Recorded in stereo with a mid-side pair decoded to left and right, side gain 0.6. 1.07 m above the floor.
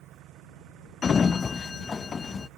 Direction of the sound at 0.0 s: 60° right.